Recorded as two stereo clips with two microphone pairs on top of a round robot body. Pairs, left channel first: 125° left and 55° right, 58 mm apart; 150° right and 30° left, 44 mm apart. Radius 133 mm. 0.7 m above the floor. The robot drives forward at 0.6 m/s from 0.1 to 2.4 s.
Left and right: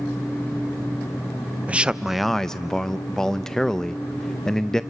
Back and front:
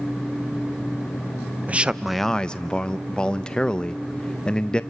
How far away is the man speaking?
About 0.5 m.